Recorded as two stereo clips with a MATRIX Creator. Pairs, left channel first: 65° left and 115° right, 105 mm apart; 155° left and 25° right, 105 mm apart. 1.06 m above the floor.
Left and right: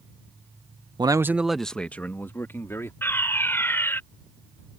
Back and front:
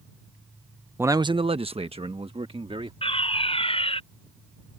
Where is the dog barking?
No dog barking in this recording.